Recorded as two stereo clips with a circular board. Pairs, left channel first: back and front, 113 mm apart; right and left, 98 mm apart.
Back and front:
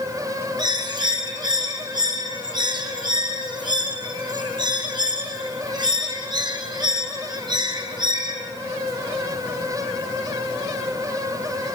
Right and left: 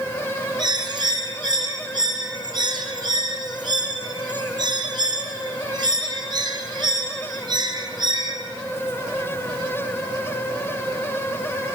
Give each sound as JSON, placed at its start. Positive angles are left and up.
{"t": 0.6, "sound": "a bird", "azimuth_deg": 50, "distance_m": 1.2}